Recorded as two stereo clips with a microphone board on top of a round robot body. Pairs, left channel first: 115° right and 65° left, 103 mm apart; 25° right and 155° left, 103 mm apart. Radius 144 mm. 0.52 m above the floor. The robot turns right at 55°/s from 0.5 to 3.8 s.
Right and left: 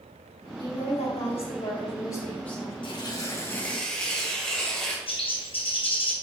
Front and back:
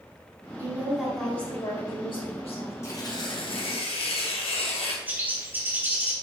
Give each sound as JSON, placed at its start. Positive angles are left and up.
{"t": 0.6, "sound": "a woman speaking", "azimuth_deg": -145, "distance_m": 3.5}
{"t": 2.8, "sound": "tearing paper", "azimuth_deg": -85, "distance_m": 2.0}
{"t": 5.1, "sound": "a bird", "azimuth_deg": -135, "distance_m": 2.5}